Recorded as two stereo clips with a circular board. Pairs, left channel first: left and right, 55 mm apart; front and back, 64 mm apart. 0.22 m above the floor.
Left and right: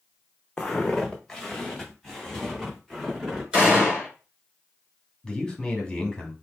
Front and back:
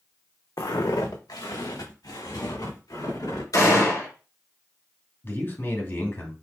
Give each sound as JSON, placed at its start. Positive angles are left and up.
{"t": 0.6, "sound": "footsteps", "azimuth_deg": 15, "distance_m": 0.8}
{"t": 3.5, "sound": "a gunshot", "azimuth_deg": -15, "distance_m": 3.5}
{"t": 5.2, "sound": "a man speaking", "azimuth_deg": 15, "distance_m": 1.9}